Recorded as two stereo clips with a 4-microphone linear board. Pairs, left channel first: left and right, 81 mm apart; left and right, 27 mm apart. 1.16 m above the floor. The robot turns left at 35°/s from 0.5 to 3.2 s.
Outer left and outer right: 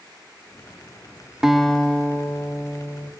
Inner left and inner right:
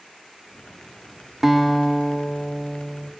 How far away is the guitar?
About 1.4 m.